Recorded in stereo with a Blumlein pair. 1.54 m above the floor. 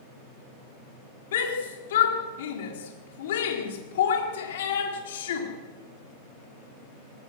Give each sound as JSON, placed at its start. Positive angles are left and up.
{"t": 1.3, "sound": "a shout", "azimuth_deg": 60, "distance_m": 4.0}